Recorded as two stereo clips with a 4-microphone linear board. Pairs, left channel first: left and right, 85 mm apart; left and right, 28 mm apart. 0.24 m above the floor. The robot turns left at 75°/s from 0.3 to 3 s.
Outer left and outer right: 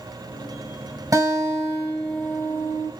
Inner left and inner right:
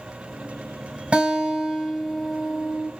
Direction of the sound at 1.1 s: 105° right.